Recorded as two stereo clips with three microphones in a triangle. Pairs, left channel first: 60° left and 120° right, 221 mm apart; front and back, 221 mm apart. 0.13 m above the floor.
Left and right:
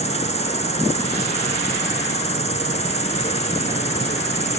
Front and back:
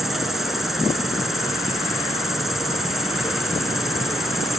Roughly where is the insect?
Left.